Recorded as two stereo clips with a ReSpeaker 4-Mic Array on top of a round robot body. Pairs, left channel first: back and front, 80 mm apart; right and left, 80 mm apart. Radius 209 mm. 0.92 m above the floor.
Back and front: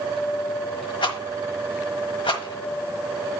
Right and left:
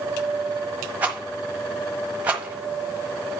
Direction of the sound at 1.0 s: 160° left.